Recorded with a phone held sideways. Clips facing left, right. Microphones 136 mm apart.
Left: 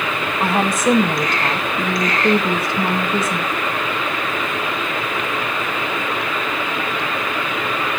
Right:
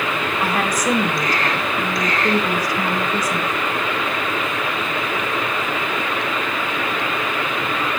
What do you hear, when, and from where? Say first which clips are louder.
0.4 s a woman speaking: left 5 dB; 25° left (ahead or behind), 2.0 m